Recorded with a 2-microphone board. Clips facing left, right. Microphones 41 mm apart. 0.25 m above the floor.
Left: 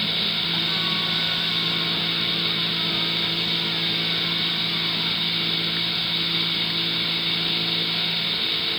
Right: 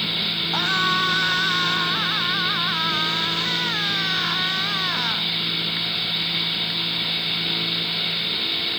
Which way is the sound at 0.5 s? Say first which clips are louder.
Right 4 dB; 75° right (ahead or behind).